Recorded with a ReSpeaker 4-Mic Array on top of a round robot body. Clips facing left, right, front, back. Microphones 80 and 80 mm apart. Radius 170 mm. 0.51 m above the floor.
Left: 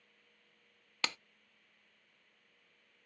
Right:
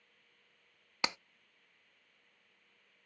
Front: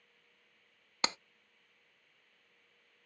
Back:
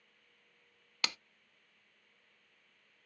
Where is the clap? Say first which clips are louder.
Right 2 dB, front 5 dB; 30° right, 0.6 m.